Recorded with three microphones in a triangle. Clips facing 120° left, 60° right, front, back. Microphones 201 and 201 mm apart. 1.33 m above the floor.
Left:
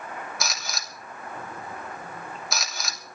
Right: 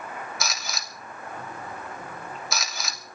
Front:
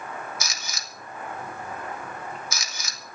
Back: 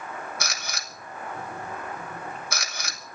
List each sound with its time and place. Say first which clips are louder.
0.4 s a camera shutter: even, back 2 dB; 150° right, 2.5 m